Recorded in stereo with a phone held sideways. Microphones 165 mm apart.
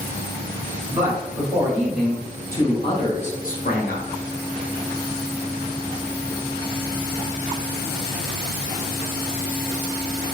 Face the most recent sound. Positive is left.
turn(degrees=75)  # may be behind; listen again after turning